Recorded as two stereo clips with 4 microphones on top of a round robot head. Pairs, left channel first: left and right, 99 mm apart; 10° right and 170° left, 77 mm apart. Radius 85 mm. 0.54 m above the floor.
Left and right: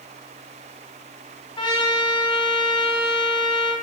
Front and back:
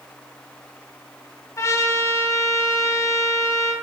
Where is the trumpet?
40° left, 3 m.